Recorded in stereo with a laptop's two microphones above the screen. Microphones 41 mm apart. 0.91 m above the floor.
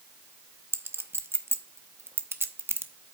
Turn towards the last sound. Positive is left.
turn(degrees=-80)